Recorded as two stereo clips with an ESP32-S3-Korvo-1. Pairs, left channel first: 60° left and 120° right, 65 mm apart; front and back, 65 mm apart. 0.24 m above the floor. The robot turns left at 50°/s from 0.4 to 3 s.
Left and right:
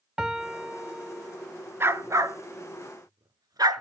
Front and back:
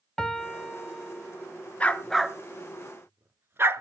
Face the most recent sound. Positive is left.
turn(degrees=-130)